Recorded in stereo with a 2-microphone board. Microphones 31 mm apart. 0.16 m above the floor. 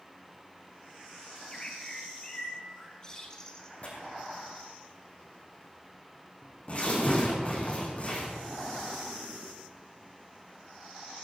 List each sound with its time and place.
1.3 s a bird: 20° left (ahead or behind), 1.7 m
3.8 s tearing paper: 45° left (ahead or behind), 3 m